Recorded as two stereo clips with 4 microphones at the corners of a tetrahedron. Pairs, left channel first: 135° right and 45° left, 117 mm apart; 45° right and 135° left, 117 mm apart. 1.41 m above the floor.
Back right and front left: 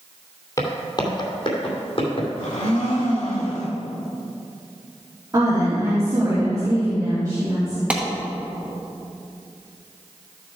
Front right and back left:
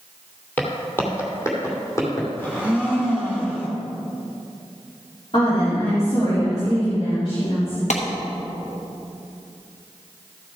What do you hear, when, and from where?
0.6 s footsteps: 110° right, 1.6 m; by 2.3 s 105° right, 3.5 m
2.4 s a blender: 115° right, 2.0 m
5.3 s a woman speaking: 15° right, 3.5 m
7.9 s a clap: 35° right, 1.1 m